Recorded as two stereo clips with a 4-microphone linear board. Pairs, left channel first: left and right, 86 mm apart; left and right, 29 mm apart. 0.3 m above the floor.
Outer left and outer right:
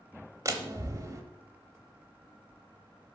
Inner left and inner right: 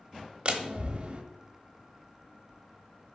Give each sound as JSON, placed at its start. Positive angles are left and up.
{"t": 0.5, "sound": "a door slam", "side_deg": -35, "distance_m": 1.0}